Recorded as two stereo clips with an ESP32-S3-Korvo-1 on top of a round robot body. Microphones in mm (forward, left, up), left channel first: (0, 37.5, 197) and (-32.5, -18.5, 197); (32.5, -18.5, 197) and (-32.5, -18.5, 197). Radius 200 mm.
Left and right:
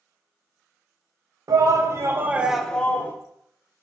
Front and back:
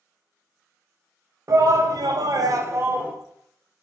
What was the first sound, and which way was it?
A shout, 145° right.